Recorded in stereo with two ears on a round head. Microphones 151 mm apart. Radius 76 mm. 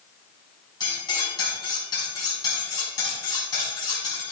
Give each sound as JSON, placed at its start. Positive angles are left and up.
{"t": 0.8, "sound": "cutlery clinking", "side_deg": 25, "distance_m": 4.5}